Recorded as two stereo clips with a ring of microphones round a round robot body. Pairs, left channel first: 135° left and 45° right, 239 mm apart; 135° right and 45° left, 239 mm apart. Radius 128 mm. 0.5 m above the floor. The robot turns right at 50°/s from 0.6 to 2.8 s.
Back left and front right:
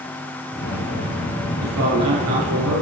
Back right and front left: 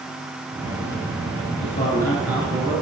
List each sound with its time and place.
1.6 s a man speaking: 75° right, 8.5 m; by 2.8 s 15° right, 8.5 m